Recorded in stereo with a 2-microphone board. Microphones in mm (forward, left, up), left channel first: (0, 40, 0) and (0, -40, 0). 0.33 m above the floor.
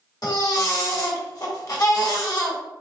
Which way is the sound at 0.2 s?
50° left (ahead or behind).